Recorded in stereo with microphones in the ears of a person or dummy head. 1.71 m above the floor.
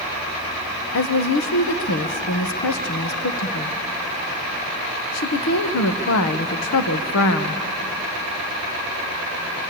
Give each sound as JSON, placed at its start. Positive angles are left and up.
{"t": 0.9, "sound": "a woman speaking", "side_deg": 80, "distance_m": 1.6}